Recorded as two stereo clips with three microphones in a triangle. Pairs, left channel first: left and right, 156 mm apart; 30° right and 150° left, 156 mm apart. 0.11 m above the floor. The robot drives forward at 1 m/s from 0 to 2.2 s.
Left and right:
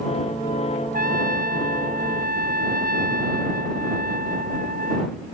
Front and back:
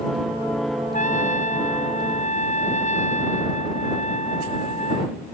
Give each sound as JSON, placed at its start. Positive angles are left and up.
{"t": 0.9, "sound": "a trumpet", "azimuth_deg": -65}